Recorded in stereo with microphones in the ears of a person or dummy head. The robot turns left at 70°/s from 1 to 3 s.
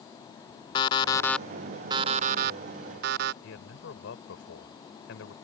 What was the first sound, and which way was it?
An alarm clock, 35° left.